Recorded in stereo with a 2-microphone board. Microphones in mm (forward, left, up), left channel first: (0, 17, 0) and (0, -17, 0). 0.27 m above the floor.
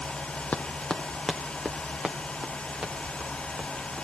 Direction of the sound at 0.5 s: 55° left (ahead or behind).